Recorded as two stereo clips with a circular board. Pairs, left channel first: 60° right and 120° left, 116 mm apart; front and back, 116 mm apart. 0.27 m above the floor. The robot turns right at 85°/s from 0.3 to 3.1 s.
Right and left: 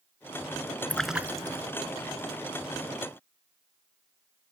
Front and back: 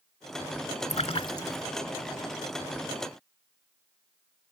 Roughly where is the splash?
Ahead.